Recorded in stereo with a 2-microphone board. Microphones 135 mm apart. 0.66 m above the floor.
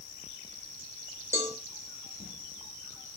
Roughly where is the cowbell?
Right.